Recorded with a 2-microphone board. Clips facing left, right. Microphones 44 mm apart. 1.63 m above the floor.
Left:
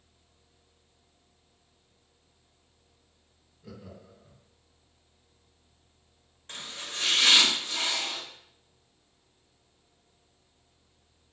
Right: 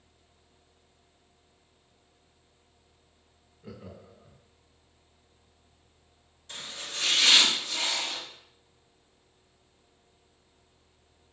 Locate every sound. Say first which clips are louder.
3.6 s laughter: right 1 dB; 25° right (ahead or behind), 0.9 m
6.5 s chopping: even; 50° left (ahead or behind), 1.9 m